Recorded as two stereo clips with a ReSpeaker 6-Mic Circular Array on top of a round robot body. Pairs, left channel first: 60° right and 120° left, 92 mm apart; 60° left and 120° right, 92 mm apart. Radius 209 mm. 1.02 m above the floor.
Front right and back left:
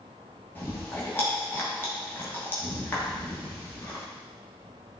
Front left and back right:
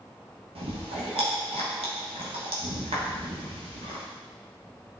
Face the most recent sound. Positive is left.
turn(degrees=-130)